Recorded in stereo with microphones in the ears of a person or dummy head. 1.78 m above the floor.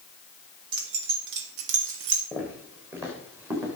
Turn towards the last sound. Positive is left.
turn(degrees=-15)  # may be behind; listen again after turning